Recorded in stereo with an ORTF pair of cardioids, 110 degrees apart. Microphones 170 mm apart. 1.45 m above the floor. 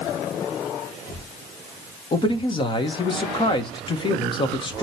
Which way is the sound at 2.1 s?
30° left.